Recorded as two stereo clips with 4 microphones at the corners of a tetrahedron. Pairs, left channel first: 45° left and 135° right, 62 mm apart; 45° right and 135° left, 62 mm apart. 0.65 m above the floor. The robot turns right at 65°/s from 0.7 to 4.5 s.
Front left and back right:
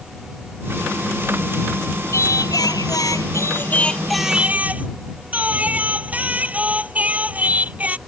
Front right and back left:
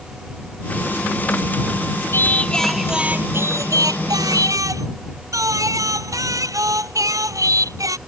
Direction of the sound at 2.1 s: 5° left.